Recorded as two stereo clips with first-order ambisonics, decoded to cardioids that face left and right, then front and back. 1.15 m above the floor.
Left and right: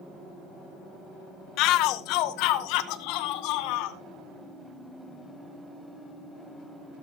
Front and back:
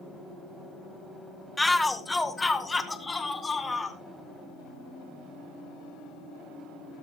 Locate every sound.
1.6 s a shout: 85° left, 1.1 m; by 4.0 s 80° left, 2.5 m